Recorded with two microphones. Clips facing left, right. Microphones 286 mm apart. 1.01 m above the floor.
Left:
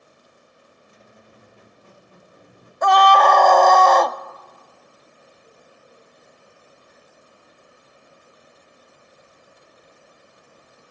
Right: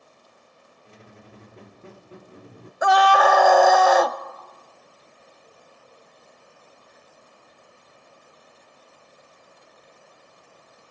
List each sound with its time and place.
0.8 s a squeak: 75° right (ahead or behind), 1.3 m
2.8 s a scream: 5° right (ahead or behind), 0.9 m